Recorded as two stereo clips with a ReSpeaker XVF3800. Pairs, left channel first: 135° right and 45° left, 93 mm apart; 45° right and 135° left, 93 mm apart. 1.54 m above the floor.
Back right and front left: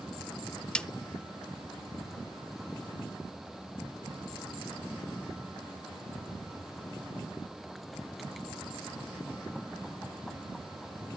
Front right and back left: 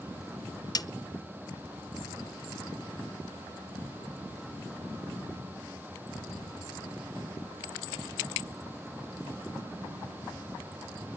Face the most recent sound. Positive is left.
turn(degrees=-60)